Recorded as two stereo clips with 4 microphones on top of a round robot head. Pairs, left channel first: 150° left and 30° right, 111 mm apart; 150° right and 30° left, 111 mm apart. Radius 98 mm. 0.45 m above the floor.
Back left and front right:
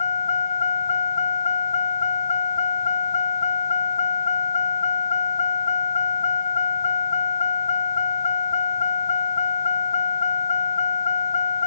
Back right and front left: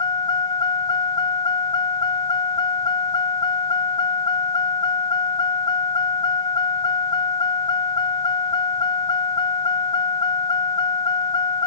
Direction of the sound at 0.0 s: 165° left.